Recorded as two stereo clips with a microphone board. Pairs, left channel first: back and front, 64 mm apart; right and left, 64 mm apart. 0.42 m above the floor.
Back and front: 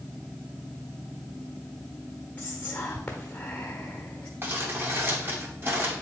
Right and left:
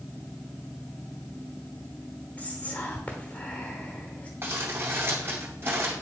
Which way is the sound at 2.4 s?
130° right.